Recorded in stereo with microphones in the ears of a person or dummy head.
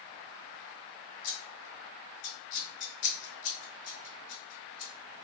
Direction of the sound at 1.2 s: 50° left (ahead or behind).